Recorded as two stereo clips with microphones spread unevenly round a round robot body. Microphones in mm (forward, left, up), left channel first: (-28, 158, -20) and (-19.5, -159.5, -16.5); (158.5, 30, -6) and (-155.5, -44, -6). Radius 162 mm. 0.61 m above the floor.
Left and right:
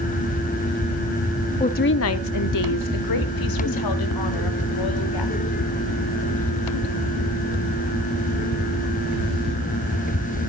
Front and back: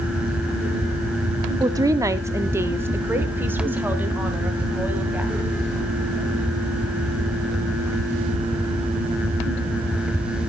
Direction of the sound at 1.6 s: 135° left.